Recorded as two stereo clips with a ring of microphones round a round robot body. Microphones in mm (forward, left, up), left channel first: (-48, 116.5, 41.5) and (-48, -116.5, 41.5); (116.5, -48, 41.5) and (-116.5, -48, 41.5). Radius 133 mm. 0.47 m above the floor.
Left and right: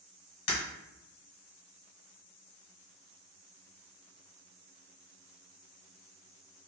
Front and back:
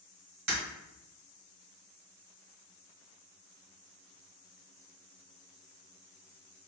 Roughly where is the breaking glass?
Behind left.